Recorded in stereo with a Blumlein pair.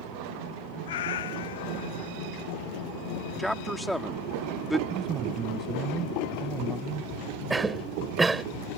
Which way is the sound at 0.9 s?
60° left.